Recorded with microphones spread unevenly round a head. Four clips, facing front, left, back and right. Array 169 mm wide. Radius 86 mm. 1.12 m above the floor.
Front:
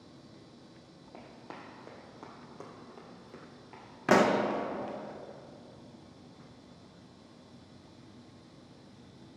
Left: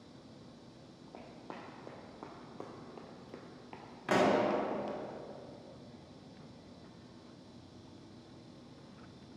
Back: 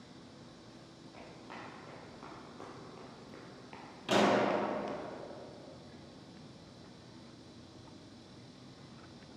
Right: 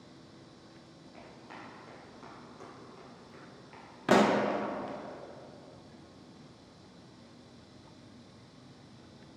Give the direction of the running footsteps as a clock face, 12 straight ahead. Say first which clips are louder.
Left 1 dB, front 2 dB; 10 o'clock.